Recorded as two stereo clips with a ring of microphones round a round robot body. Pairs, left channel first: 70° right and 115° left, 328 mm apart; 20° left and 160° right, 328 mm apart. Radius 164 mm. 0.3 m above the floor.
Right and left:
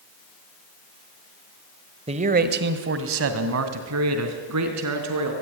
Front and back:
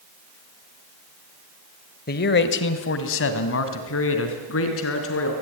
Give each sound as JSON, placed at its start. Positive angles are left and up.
{"t": 2.1, "sound": "a man speaking", "azimuth_deg": 55, "distance_m": 1.5}